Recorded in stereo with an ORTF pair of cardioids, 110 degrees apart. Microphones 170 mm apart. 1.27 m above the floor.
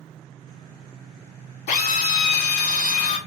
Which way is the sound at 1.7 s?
65° left.